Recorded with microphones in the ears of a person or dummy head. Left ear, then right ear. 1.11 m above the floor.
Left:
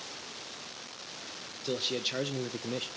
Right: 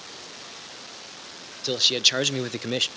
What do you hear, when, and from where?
1.6 s a man speaking: 30° right (ahead or behind), 0.9 m; by 2.9 s 40° right (ahead or behind), 0.5 m